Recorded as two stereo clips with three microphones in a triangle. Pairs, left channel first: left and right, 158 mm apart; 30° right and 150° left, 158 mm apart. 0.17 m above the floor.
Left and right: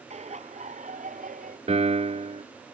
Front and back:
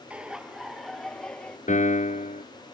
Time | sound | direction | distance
0.1 | laughter | 130° right | ?
1.7 | a piano | 55° right | ?